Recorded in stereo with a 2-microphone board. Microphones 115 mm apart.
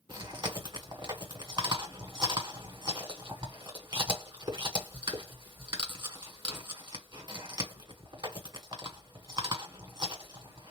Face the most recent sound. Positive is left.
turn(degrees=-40)  # may be behind; listen again after turning